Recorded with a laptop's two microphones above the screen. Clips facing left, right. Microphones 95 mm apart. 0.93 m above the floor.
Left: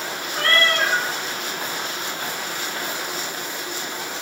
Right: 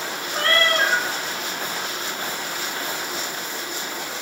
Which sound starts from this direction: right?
A cat meowing, at 0.3 s.